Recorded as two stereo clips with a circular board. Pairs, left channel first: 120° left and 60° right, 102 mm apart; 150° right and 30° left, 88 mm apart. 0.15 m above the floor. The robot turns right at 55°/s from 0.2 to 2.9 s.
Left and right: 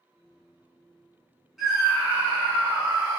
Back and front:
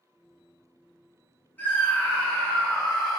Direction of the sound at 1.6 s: 140° right.